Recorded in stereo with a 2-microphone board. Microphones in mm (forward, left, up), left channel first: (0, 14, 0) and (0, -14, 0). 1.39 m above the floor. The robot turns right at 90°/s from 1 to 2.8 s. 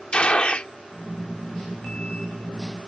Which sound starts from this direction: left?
A gunshot, at 0.1 s.